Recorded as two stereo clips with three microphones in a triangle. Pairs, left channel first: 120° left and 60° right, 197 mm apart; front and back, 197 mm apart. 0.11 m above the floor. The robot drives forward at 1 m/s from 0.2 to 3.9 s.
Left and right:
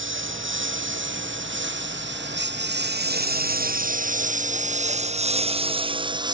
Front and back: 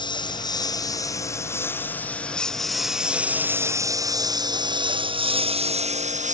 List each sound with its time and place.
0.0 s a lawn mower: 65° right; by 6.3 s 130° right